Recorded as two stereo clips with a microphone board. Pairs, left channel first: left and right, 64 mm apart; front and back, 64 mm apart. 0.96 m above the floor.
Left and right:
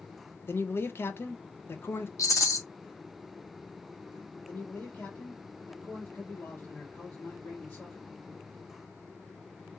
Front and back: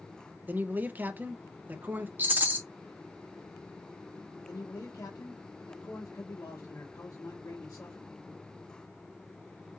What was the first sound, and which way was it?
A man speaking, 130° left.